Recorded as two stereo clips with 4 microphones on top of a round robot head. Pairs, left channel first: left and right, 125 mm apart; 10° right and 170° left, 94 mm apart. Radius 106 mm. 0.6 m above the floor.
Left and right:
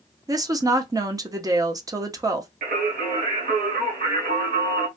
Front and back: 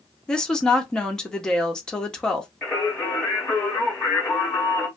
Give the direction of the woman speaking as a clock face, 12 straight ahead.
3 o'clock.